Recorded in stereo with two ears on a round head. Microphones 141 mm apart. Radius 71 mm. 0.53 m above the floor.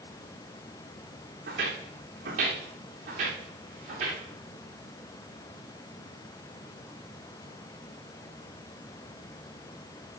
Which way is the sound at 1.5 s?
60° right (ahead or behind).